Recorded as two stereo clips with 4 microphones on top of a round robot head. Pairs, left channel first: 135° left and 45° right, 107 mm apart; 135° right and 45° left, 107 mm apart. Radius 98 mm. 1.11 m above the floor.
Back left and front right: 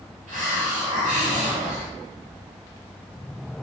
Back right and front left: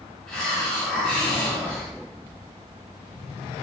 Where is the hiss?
50° right, 1.4 m.